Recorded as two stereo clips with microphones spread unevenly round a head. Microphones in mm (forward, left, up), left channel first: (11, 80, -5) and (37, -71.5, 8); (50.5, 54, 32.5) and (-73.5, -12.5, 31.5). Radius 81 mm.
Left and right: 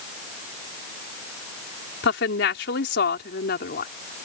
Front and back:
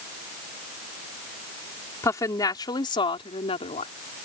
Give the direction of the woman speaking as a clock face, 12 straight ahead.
9 o'clock.